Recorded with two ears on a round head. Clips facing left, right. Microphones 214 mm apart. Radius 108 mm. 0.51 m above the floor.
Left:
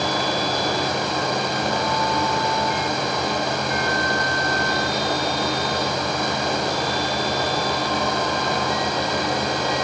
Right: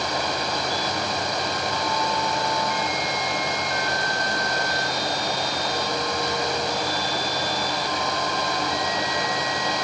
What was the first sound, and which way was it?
Only background noise.